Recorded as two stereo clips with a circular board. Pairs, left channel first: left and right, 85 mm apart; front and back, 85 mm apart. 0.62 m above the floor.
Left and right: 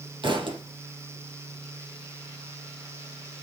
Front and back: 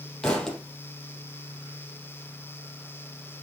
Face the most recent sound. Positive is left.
turn(degrees=-80)